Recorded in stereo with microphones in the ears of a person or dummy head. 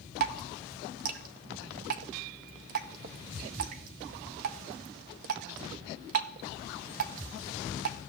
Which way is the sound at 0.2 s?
50° right (ahead or behind).